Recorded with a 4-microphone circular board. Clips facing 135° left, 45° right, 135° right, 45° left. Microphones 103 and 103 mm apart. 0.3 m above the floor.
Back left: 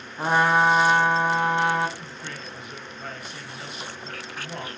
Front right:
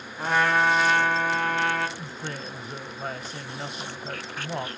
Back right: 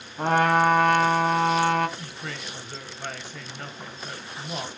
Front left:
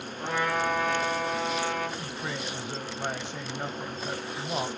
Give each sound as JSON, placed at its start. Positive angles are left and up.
{"t": 0.2, "sound": "a trumpet", "azimuth_deg": -160, "distance_m": 1.2}
{"t": 2.0, "sound": "a woman speaking", "azimuth_deg": -15, "distance_m": 1.1}